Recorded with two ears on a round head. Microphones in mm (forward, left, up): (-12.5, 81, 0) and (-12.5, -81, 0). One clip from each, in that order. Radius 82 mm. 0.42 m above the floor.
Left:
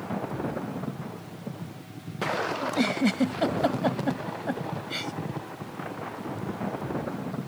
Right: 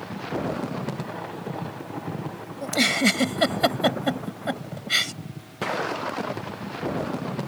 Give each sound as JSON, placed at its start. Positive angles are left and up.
{"t": 2.6, "sound": "a giggle", "side_deg": -60}